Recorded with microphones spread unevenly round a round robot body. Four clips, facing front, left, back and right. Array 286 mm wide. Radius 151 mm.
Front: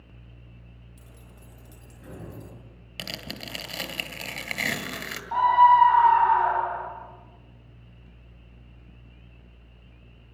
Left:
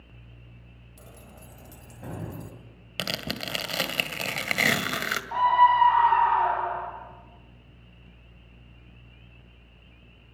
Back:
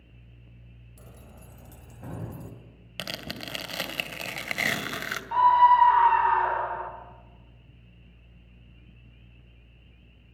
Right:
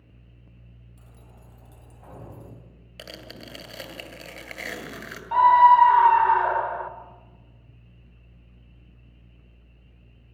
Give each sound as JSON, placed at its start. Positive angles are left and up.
{"t": 1.0, "sound": "keys jangling", "azimuth_deg": 150, "distance_m": 2.5}
{"t": 3.0, "sound": "tearing paper", "azimuth_deg": 100, "distance_m": 2.5}
{"t": 5.3, "sound": "a scream", "azimuth_deg": -110, "distance_m": 2.5}